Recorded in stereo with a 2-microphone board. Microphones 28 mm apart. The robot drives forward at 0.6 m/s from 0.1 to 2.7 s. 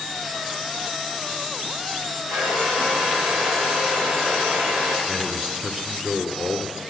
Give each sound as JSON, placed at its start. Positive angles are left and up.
{"t": 2.3, "sound": "a hair dryer", "side_deg": -85, "distance_m": 9.5}
{"t": 5.1, "sound": "a man speaking", "side_deg": -15, "distance_m": 1.9}